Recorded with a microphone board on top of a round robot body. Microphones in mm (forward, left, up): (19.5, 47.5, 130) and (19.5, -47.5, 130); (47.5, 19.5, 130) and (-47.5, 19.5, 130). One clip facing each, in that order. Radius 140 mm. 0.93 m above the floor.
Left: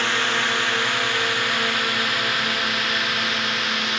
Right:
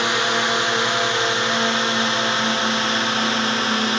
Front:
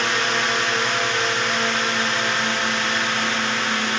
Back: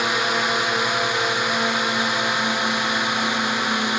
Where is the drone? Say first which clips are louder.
Right 3 dB, even; 120° right; by 4.0 s 110° right.